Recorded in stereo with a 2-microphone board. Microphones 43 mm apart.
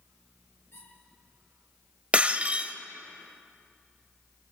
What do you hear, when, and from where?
0.7 s a squeak: 70° left (ahead or behind), 6.5 m
2.1 s breaking glass: 30° right (ahead or behind), 1.0 m